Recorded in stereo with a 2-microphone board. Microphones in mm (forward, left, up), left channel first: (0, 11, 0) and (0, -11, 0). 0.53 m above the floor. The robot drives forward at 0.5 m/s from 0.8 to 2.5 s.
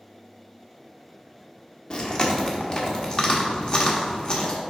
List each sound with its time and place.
1.9 s chewing: 40° left (ahead or behind), 1.0 m; by 4.6 s 35° left (ahead or behind), 1.1 m